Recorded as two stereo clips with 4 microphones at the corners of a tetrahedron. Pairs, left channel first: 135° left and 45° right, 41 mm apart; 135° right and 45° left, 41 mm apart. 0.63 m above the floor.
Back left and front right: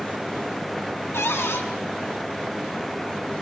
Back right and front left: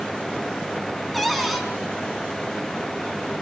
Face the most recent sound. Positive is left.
turn(degrees=135)